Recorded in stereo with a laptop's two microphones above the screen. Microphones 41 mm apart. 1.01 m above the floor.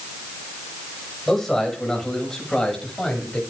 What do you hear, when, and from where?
1.3 s a man speaking: 5° left (ahead or behind), 6.5 m; by 3.4 s 10° left (ahead or behind), 7.5 m